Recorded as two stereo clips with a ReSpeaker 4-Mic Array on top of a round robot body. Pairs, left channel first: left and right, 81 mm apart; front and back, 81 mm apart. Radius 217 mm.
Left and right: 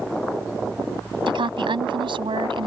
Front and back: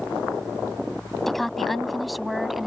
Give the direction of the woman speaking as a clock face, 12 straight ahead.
3 o'clock.